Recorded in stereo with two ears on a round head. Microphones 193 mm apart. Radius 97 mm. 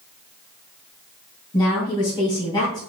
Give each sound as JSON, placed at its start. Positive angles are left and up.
{"t": 1.5, "sound": "a woman speaking", "side_deg": 20, "distance_m": 3.5}